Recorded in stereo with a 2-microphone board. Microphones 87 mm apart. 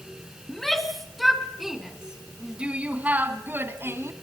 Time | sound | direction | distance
0.5 | a shout | 5° left (ahead or behind) | 4 m